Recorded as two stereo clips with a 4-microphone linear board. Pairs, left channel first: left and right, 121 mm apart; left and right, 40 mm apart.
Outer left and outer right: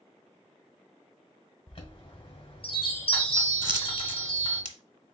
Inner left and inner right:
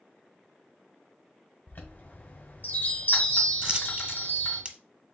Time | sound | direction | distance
1.7 | a chime | 45° left (ahead or behind) | 1.9 m
3.6 | a dropped coin | 35° right (ahead or behind) | 0.8 m